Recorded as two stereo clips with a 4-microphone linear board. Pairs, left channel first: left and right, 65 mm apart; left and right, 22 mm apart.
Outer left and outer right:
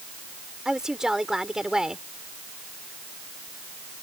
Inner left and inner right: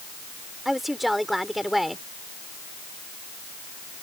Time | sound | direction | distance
0.7 | a woman speaking | 10° right (ahead or behind) | ?